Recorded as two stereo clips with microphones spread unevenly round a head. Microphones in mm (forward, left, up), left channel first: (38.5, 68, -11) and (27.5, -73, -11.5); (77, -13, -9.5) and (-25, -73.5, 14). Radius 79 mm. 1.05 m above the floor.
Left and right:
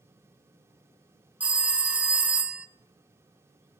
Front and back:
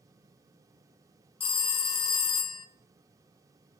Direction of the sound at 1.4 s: 15° right.